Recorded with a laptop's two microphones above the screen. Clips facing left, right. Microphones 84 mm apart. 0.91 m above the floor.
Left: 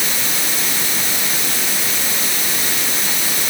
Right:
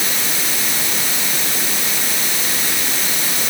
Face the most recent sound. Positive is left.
No sound to turn to.